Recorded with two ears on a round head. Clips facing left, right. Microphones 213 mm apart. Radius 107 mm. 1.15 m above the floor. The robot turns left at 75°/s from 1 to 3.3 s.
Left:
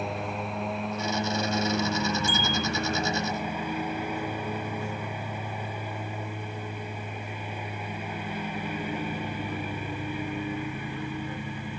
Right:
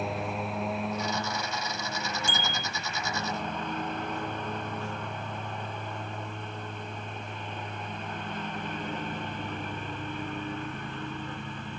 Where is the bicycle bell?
65° right (ahead or behind); by 2.7 s 35° right (ahead or behind).